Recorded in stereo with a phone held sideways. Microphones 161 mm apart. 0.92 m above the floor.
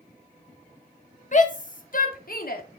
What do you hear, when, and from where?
1.3 s a shout: 50° left (ahead or behind), 2 m; by 2.6 s 70° left (ahead or behind), 2 m